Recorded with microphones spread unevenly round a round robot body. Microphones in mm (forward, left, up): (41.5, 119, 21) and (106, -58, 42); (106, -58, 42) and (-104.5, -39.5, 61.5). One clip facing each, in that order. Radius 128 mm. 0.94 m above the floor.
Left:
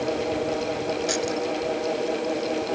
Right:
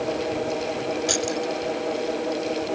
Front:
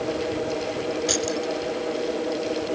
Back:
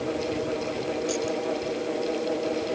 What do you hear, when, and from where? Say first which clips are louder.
1.1 s keys jangling: even, front 1 dB; 15° right